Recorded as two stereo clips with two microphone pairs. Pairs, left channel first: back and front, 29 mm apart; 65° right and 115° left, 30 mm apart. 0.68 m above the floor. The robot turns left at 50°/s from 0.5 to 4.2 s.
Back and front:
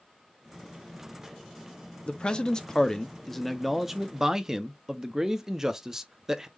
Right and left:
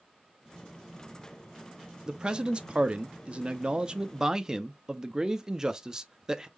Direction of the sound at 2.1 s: 165° left.